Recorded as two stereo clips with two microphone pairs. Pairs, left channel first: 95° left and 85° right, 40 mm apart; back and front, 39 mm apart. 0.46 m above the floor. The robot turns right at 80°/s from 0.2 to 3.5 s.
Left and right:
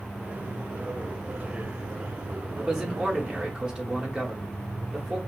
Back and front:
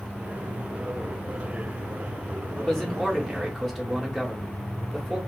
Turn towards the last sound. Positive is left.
turn(degrees=-90)